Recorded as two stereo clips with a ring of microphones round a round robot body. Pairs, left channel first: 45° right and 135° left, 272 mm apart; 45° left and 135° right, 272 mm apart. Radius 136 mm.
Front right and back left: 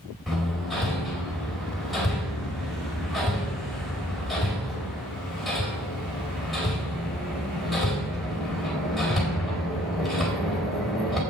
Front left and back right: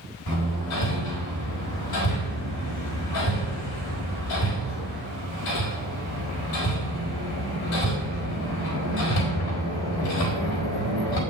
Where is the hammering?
45° left, 4 m.